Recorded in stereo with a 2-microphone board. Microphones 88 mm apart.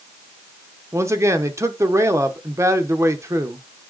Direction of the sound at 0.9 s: 30° right (ahead or behind).